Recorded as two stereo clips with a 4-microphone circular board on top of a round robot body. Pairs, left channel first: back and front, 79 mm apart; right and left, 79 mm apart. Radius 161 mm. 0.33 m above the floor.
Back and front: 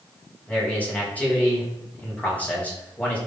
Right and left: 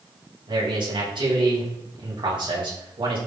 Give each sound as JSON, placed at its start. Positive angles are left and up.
{"t": 0.5, "sound": "a man speaking", "azimuth_deg": 110, "distance_m": 5.0}